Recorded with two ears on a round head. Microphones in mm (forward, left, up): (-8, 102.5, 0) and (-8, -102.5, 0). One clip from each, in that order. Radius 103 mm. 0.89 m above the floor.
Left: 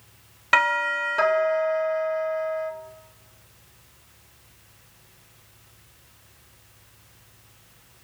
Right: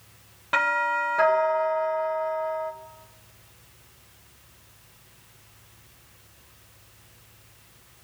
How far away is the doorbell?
About 4 m.